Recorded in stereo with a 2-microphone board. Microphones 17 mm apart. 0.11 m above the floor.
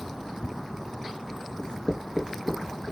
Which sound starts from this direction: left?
Writing, at 1.6 s.